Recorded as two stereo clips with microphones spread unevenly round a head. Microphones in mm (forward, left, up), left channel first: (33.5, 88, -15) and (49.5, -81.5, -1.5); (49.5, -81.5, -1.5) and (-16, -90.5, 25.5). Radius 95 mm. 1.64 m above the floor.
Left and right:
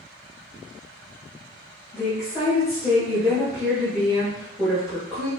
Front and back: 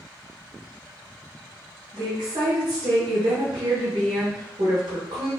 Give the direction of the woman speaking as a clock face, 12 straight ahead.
6 o'clock.